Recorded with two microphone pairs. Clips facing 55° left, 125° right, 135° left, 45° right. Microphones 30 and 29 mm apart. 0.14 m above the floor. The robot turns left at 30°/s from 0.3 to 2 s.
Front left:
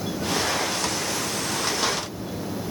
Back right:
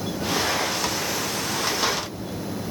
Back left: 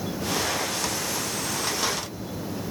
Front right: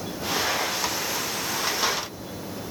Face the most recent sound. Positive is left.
No sound to turn to.